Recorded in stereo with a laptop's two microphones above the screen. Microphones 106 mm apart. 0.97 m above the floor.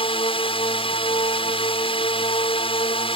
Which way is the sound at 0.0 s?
60° left (ahead or behind).